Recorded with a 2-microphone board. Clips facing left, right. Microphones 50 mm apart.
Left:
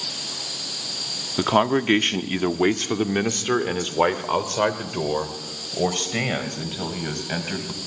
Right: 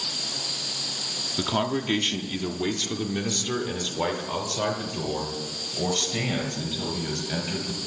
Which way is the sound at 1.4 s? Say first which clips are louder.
Left 7 dB; 35° left (ahead or behind).